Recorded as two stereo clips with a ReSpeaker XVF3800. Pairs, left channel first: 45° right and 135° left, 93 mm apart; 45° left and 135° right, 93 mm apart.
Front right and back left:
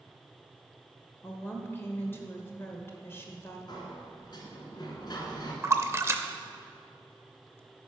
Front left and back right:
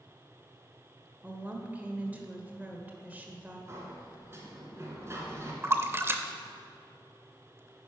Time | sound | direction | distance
1.2 | a woman speaking | 80° right | 1.2 m
3.7 | a sliding door | 75° right | 1.6 m
5.6 | a splash | straight behind | 0.6 m